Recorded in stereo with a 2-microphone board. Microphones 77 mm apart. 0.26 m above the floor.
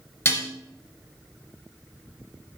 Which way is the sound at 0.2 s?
35° left (ahead or behind).